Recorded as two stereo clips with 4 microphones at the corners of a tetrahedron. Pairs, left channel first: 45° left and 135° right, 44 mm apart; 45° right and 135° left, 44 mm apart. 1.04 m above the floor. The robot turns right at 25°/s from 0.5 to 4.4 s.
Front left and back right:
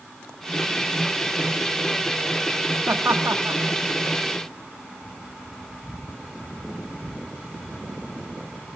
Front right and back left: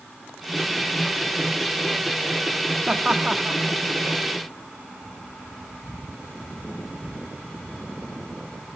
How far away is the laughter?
About 1.6 m.